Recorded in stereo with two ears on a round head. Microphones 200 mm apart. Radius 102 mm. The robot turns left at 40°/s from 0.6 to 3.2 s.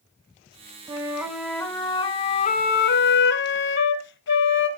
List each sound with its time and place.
0.9 s a flute: 160° right, 1.0 m; by 4.7 s 105° left, 1.0 m